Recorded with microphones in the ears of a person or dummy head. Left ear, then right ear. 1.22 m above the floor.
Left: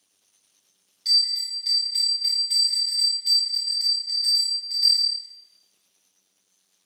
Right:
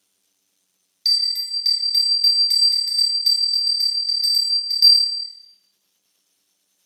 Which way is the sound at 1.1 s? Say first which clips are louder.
Right 2 dB; 40° right (ahead or behind).